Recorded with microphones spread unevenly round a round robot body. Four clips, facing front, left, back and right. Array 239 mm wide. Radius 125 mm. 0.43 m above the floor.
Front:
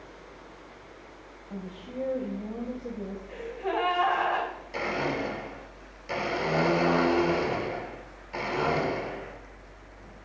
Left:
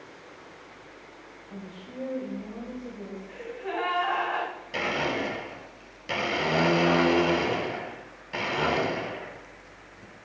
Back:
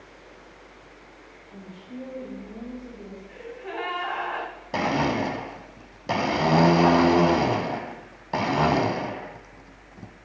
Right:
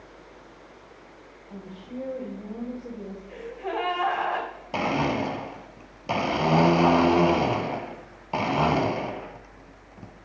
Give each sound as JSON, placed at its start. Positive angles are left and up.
{"t": 1.5, "sound": "a woman speaking", "azimuth_deg": -10, "distance_m": 2.5}
{"t": 3.3, "sound": "a gasp", "azimuth_deg": -50, "distance_m": 4.0}
{"t": 4.7, "sound": "a blender", "azimuth_deg": -150, "distance_m": 0.9}